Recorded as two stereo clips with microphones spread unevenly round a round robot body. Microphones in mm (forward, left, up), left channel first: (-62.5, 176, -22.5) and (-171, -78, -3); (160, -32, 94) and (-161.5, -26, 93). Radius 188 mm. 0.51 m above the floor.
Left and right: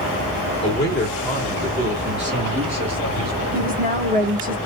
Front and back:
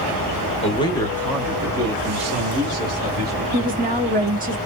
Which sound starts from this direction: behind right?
A woman speaking, at 3.5 s.